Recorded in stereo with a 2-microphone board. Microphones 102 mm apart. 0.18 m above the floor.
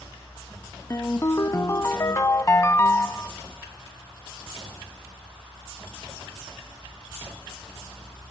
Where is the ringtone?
30° left (ahead or behind), 0.6 m.